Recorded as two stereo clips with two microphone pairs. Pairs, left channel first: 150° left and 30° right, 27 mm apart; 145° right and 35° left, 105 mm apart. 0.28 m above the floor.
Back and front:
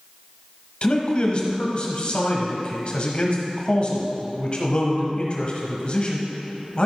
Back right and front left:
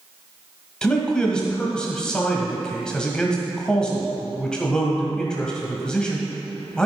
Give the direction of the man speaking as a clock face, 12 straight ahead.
7 o'clock.